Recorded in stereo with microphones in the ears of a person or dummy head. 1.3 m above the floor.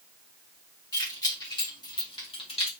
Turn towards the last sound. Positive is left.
turn(degrees=35)  # may be behind; listen again after turning